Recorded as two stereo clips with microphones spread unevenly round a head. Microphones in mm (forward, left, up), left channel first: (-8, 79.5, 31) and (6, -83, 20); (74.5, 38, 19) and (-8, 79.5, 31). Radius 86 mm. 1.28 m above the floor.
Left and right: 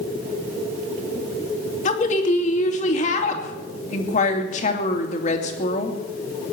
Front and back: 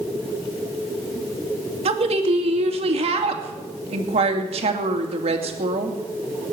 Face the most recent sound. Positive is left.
turn(degrees=145)